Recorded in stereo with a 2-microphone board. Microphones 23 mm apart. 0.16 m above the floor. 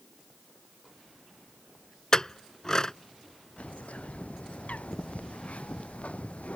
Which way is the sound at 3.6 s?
85° left.